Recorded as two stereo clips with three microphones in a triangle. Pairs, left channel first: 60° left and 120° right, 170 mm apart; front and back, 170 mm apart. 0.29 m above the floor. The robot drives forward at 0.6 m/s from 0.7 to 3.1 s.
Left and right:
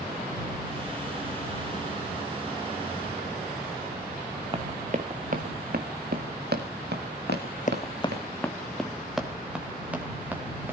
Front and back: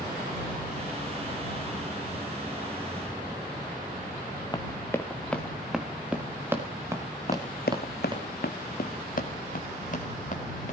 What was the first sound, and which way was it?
Running footsteps, 65° right.